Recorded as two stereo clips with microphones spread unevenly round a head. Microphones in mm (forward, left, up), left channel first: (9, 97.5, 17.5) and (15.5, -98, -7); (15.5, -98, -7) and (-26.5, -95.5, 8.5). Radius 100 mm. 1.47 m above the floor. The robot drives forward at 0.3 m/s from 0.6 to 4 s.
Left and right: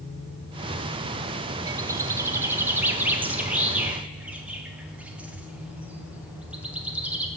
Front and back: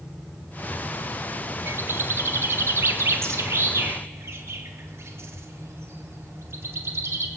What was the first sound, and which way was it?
A bird, 160° right.